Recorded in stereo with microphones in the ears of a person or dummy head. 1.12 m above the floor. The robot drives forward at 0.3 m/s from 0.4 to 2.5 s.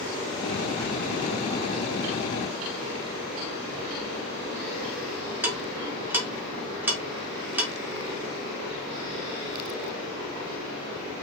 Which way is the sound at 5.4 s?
10° right (ahead or behind).